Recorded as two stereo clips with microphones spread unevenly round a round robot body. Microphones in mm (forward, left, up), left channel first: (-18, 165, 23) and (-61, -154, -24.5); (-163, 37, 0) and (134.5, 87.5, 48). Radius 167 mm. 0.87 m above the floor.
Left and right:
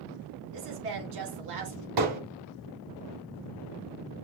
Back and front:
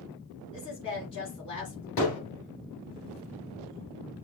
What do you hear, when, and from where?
0.5 s a woman speaking: 95° right, 2.5 m
2.0 s hammering: 120° right, 4 m